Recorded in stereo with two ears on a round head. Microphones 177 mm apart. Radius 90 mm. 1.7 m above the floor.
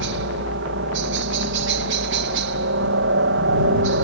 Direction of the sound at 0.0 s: 65° right (ahead or behind).